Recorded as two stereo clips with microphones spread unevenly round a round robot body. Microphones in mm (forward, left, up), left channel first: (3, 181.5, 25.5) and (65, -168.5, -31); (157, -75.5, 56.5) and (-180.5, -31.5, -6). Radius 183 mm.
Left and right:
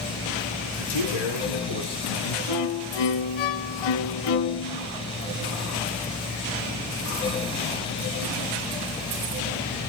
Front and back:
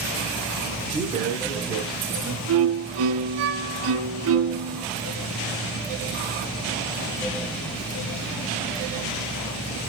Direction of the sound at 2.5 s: 115° left.